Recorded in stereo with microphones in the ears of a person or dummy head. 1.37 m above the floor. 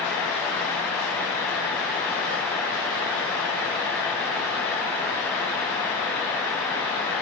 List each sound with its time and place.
Only background noise.